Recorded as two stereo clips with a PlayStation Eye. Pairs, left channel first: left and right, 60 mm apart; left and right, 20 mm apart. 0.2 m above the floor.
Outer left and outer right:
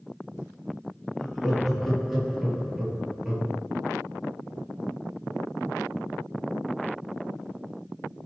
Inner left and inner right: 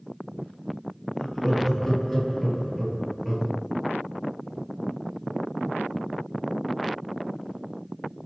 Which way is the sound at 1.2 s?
5° left (ahead or behind).